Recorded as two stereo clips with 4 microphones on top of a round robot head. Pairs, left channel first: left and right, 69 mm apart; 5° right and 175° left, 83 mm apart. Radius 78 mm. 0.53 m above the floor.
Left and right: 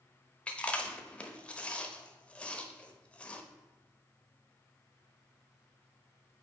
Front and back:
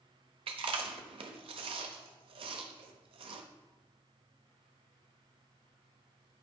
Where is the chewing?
165° left, 0.8 m.